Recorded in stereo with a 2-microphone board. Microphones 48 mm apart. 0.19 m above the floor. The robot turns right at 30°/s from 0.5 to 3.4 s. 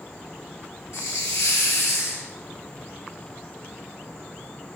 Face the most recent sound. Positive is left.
turn(degrees=165)